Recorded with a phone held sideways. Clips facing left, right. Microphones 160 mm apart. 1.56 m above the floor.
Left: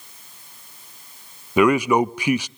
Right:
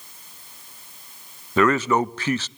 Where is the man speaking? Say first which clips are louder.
Left 3 dB; 10° left (ahead or behind), 0.6 m.